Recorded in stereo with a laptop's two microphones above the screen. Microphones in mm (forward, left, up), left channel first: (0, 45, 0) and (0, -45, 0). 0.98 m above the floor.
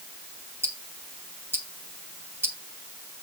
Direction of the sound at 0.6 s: 25° right (ahead or behind).